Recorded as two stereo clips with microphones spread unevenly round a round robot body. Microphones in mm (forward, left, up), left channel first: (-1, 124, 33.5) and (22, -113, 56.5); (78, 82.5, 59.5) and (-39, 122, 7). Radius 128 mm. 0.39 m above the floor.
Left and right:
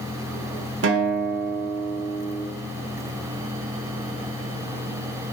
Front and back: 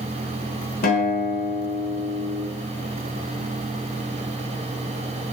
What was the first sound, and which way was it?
A guitar, 50° right.